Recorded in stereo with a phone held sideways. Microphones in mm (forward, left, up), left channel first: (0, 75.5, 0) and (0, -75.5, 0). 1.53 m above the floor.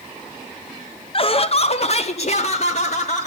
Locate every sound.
1.1 s laughter: 35° left (ahead or behind), 0.5 m; by 3.3 s 50° left (ahead or behind), 1.7 m